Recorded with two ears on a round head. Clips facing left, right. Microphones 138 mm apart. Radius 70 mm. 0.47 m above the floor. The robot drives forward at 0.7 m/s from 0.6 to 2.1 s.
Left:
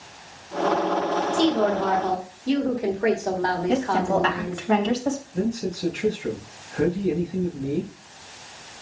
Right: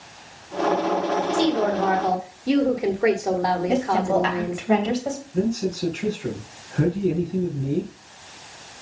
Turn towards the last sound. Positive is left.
turn(degrees=-55)  # may be behind; listen again after turning